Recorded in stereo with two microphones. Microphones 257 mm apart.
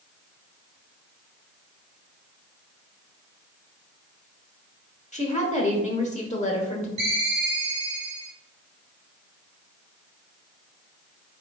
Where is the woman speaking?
30° left (ahead or behind), 1.0 m.